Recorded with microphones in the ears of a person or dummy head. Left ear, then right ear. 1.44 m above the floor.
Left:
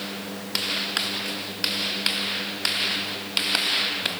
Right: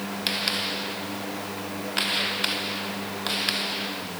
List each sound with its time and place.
Only background noise.